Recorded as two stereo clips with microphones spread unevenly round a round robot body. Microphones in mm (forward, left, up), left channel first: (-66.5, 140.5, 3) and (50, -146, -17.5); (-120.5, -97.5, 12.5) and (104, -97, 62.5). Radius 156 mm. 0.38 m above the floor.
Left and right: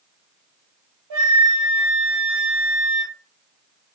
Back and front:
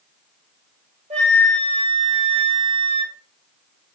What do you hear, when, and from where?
1.1 s a flute: 65° right, 1.0 m